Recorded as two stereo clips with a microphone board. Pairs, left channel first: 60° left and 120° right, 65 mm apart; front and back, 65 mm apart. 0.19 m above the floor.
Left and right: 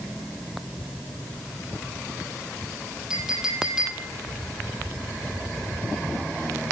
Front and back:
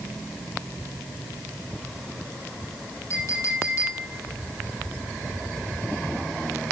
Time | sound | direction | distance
3.1 | a clink | 40° right | 5.5 m